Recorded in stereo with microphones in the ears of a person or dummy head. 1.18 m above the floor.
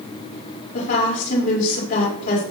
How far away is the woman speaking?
About 5.5 m.